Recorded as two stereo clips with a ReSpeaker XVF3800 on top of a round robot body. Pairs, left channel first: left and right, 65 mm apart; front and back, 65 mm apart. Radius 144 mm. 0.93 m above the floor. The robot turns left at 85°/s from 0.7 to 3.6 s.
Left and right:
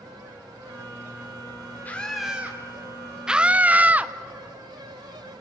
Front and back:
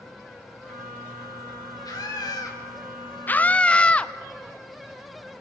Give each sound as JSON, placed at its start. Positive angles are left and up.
{"t": 1.9, "sound": "a scream", "azimuth_deg": 25, "distance_m": 3.5}
{"t": 3.3, "sound": "a scream", "azimuth_deg": -20, "distance_m": 0.8}